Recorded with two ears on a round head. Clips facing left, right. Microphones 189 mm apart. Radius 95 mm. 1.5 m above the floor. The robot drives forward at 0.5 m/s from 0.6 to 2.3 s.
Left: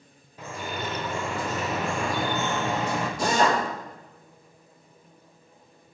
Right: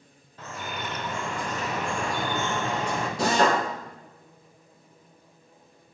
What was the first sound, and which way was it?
Dripping, 10° left (ahead or behind).